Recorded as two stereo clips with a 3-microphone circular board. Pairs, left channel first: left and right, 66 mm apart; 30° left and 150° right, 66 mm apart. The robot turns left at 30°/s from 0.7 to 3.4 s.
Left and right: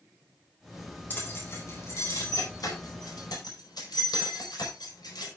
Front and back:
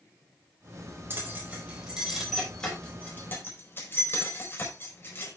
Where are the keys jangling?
155° left, 4.5 m; by 5.3 s 85° left, 4.5 m.